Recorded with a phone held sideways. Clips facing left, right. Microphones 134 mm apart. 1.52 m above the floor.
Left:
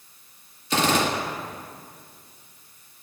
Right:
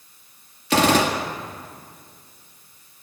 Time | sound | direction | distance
0.7 | a gunshot | 70° right (ahead or behind) | 2 m